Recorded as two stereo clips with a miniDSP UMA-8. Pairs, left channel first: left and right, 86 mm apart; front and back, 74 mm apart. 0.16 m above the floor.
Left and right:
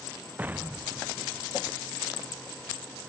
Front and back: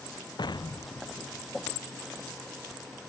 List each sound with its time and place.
0.4 s an explosion: 20° right